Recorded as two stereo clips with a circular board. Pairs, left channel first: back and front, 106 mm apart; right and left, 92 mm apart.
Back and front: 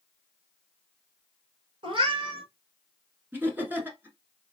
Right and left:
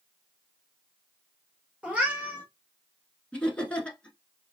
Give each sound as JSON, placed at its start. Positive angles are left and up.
{"t": 1.8, "sound": "a cat meowing", "azimuth_deg": 15, "distance_m": 1.4}
{"t": 3.3, "sound": "laughter", "azimuth_deg": -35, "distance_m": 1.1}